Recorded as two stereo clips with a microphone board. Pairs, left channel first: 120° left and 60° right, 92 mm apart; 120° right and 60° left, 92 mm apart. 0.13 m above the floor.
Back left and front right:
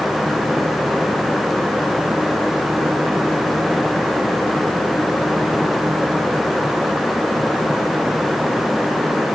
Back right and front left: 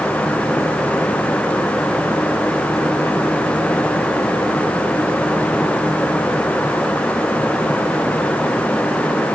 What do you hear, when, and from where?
Only background noise.